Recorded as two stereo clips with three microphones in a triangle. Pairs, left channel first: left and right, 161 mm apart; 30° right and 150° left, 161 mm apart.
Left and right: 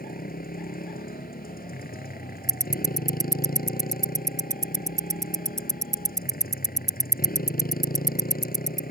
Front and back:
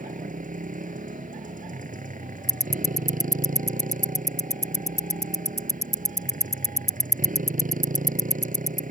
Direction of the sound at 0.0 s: 115° left.